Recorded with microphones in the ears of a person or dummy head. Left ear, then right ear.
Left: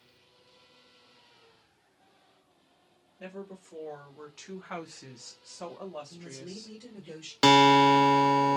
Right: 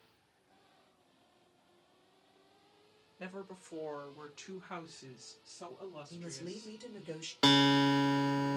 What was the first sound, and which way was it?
A woman speaking, 40° right (ahead or behind).